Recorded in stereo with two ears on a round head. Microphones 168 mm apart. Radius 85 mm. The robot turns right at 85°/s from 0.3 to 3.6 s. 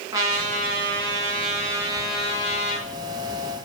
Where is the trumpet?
160° right, 3 m; by 2.9 s 60° left, 3 m.